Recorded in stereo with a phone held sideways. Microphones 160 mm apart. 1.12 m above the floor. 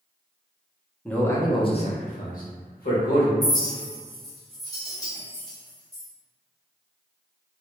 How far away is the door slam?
I don't hear a door slam.